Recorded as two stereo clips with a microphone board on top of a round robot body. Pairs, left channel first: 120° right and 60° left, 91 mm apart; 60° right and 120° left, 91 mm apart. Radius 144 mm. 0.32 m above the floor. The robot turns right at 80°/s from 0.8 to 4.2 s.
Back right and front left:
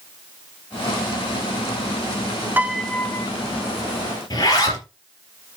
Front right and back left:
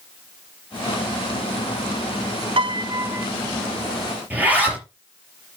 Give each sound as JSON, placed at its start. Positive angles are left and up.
{"t": 2.6, "sound": "a piano", "azimuth_deg": 130, "distance_m": 0.8}
{"t": 4.3, "sound": "a zipper", "azimuth_deg": -170, "distance_m": 4.5}